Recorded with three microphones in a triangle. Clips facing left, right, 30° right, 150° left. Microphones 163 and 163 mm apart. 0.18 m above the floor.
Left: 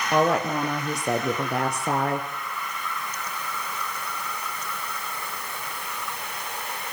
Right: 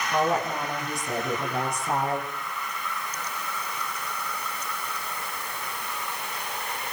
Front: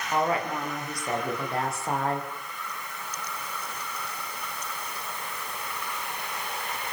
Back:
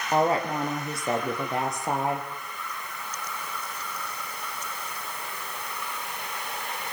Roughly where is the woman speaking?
Left.